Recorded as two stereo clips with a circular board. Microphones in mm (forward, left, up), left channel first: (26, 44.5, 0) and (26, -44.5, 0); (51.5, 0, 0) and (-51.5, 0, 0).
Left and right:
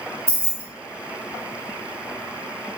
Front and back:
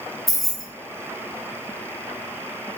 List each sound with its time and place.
0.3 s keys jangling: 85° right, 0.6 m